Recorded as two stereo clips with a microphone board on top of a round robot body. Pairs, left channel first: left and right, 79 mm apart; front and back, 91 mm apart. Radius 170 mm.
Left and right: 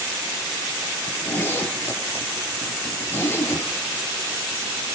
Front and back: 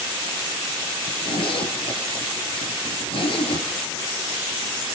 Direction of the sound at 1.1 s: 30° left.